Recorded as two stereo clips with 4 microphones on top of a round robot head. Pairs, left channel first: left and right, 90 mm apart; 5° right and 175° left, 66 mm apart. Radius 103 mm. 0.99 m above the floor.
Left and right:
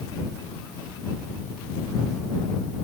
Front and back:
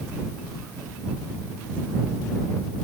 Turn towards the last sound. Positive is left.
No sound to turn to.